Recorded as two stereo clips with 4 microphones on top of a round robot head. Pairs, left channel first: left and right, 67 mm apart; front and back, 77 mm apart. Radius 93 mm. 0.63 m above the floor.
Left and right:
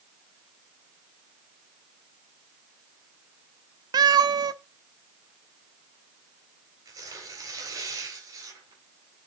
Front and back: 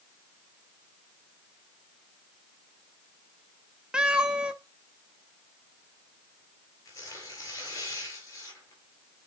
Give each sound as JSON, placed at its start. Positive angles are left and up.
{"t": 3.9, "sound": "a cat meowing", "azimuth_deg": -105, "distance_m": 0.7}
{"t": 6.8, "sound": "tearing paper", "azimuth_deg": -55, "distance_m": 4.0}